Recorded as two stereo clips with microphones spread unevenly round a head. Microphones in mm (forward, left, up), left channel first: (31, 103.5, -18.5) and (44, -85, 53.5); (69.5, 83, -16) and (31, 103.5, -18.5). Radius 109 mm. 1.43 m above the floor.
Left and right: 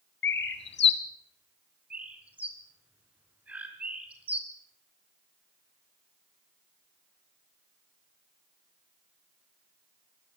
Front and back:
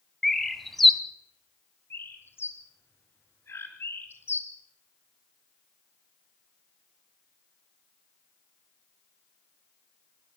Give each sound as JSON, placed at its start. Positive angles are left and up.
{"t": 0.2, "sound": "a bird", "azimuth_deg": 55, "distance_m": 2.5}
{"t": 1.9, "sound": "a bird", "azimuth_deg": -10, "distance_m": 4.5}